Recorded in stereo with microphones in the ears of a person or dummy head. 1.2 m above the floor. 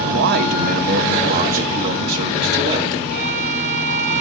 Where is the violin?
40° right (ahead or behind), 4 m.